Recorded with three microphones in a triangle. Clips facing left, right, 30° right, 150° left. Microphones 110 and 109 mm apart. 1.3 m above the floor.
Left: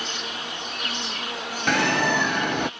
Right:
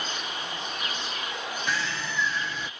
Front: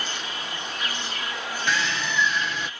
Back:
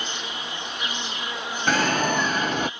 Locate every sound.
0.0 s an insect: 85° left
1.7 s a bird: 110° left